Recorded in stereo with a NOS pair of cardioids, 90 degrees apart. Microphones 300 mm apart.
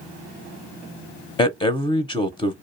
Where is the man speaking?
15° left, 0.5 m.